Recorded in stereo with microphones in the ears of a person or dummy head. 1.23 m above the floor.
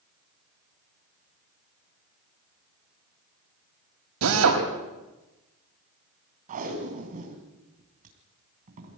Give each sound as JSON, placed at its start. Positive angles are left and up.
{"t": 4.2, "sound": "a drill", "side_deg": -90, "distance_m": 5.5}
{"t": 6.5, "sound": "tape being pulled", "side_deg": -40, "distance_m": 3.5}